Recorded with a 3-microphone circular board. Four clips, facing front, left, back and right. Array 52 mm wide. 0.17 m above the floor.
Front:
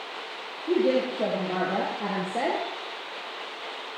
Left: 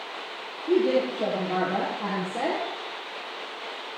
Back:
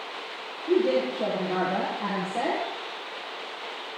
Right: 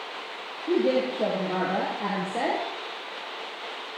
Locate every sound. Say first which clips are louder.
0.7 s a woman speaking: left 1 dB, even; 35° right, 5 m